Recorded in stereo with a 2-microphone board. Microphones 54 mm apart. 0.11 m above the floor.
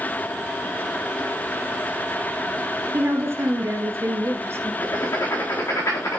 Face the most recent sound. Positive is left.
turn(degrees=60)  # may be behind; listen again after turning